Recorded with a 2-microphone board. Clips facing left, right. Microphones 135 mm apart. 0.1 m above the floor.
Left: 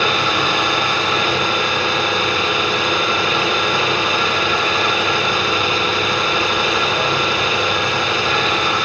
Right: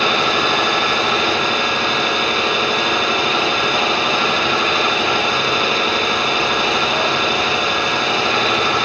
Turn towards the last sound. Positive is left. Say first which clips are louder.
# right 1 dB
turn(degrees=-35)  # may be behind; listen again after turning